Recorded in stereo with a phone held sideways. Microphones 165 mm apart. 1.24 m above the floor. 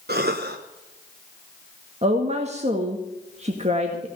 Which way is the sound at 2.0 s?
40° right (ahead or behind).